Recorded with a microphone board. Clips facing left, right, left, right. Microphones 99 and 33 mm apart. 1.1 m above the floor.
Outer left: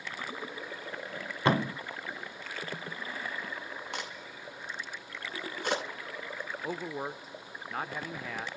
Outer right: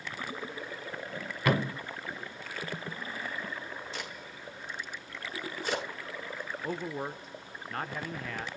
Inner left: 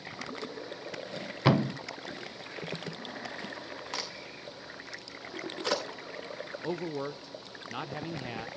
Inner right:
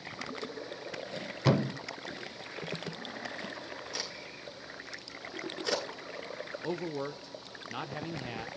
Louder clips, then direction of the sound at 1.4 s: Outer left 1 dB, inner left 2 dB; 30° left (ahead or behind).